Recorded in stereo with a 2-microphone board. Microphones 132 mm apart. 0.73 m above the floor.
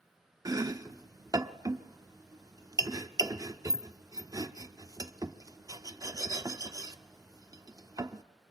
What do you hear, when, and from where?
0.5 s chopping: 25° right (ahead or behind), 0.7 m